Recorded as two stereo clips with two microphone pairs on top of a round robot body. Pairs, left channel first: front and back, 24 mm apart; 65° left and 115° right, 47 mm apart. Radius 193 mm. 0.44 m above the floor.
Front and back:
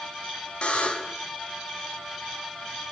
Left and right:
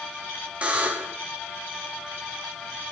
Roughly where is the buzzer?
Ahead right.